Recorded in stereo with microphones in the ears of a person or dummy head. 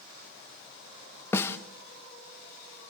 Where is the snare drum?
20° left (ahead or behind), 1.3 m.